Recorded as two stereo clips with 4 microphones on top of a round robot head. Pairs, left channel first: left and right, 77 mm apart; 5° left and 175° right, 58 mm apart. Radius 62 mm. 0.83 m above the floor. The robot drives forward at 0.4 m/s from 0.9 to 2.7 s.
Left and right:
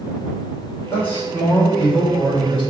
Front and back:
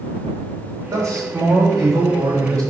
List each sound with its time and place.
0.9 s a man speaking: 160° left, 3.5 m